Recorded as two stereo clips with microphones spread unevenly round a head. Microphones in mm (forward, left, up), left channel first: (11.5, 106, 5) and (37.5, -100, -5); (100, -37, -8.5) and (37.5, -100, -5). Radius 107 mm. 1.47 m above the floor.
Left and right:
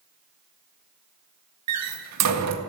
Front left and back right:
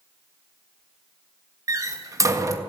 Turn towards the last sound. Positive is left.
turn(degrees=-85)